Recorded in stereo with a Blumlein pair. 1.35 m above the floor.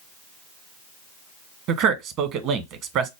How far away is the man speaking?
About 0.9 m.